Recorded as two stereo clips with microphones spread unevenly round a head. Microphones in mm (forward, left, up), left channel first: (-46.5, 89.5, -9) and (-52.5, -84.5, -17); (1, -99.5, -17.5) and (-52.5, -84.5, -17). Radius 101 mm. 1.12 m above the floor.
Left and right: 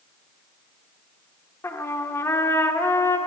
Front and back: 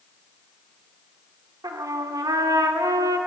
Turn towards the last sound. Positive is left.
turn(degrees=165)